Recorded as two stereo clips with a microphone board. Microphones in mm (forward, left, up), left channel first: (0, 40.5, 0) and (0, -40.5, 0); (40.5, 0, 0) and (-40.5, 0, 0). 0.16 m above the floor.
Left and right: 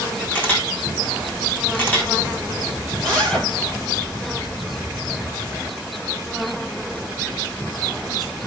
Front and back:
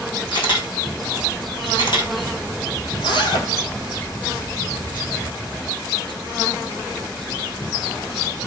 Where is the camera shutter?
20° left, 4.5 m.